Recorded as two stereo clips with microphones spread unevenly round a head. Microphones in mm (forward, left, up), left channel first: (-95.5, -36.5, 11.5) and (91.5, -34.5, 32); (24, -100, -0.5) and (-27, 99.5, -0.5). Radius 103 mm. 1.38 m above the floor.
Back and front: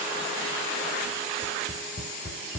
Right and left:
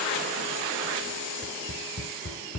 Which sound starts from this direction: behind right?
Tapping, at 1.4 s.